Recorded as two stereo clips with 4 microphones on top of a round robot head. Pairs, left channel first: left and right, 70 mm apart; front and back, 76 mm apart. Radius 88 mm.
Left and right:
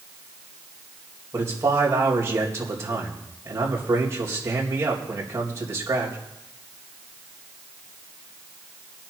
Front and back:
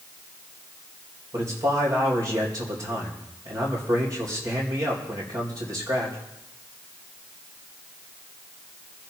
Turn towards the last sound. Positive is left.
turn(degrees=-140)